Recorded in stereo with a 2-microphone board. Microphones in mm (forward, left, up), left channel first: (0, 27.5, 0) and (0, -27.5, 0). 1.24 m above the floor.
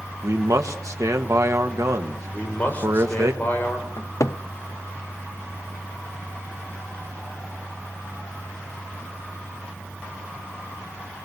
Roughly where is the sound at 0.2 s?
Right.